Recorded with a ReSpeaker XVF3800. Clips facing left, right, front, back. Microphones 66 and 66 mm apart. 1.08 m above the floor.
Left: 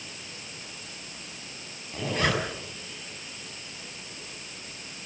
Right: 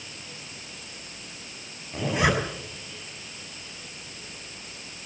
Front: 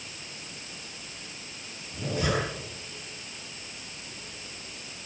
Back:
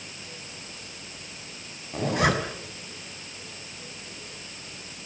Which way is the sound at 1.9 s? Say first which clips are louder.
Right 3 dB, back 5 dB; 170° right.